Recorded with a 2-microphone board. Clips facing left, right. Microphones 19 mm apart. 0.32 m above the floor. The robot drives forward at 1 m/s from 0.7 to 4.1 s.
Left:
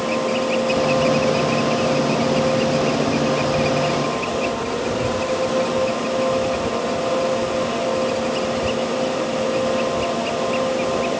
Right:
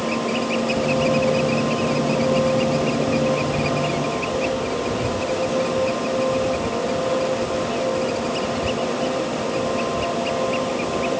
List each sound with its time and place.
Only background noise.